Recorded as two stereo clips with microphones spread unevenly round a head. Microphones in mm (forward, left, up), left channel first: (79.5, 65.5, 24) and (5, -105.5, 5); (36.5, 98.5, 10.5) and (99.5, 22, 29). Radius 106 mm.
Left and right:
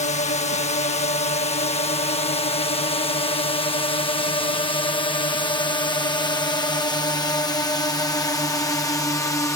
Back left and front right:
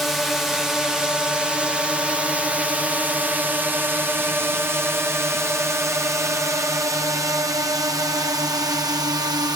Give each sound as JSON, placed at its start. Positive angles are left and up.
{"t": 0.0, "sound": "a drone", "azimuth_deg": 55}